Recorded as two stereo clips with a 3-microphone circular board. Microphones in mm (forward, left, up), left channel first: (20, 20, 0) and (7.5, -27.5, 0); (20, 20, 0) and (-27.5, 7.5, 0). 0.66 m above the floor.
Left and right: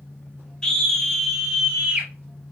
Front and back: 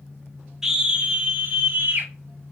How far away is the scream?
About 1.0 m.